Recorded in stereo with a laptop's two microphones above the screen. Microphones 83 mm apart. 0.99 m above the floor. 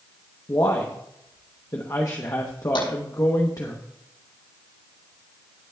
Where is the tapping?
80° left, 6 m.